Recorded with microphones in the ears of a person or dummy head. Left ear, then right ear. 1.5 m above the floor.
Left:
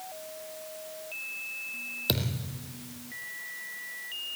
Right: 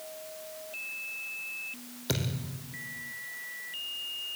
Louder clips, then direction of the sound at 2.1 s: Even; 25° left (ahead or behind).